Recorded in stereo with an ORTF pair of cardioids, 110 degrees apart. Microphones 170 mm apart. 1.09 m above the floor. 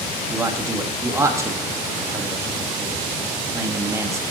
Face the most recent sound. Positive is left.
turn(degrees=-15)